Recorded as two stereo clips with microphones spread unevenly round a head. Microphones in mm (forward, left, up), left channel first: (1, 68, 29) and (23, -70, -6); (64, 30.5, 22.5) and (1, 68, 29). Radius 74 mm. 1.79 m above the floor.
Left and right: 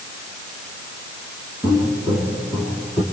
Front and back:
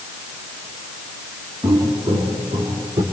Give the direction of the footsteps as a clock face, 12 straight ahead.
5 o'clock.